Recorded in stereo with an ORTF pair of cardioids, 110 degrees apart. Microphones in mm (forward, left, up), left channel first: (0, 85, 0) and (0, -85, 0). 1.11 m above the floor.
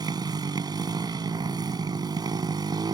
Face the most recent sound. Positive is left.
turn(degrees=-25)